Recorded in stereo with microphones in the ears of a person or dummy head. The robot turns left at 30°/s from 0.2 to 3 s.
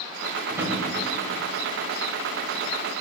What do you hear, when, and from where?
0.5 s a drawer: 10° right (ahead or behind), 2.5 m; by 0.8 s 5° right (ahead or behind), 2.5 m